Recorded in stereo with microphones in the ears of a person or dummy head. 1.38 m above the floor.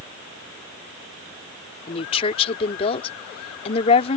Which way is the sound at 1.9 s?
35° left (ahead or behind).